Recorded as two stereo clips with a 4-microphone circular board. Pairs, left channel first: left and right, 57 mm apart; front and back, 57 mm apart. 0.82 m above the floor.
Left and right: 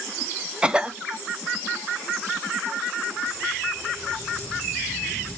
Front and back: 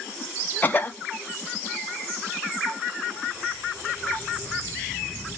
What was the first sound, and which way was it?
A cough, 30° right.